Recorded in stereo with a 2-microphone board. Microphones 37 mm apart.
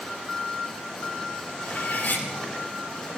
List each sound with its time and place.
1.6 s cutlery clinking: 65° left (ahead or behind), 5 m